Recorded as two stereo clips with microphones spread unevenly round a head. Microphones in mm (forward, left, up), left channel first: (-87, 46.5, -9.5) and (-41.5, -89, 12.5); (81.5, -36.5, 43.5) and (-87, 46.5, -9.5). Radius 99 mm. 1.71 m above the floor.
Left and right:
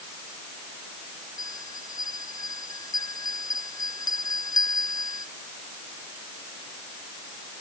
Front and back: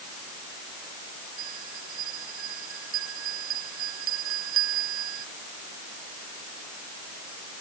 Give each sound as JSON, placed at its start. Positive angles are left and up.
{"t": 1.4, "sound": "a bell", "azimuth_deg": 175}